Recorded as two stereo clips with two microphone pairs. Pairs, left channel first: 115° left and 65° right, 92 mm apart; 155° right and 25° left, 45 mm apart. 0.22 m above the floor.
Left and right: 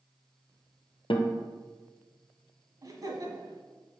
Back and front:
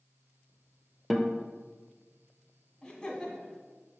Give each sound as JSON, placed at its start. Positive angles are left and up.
{"t": 1.1, "sound": "a guitar", "azimuth_deg": 115, "distance_m": 0.9}
{"t": 2.8, "sound": "laughter", "azimuth_deg": -85, "distance_m": 1.3}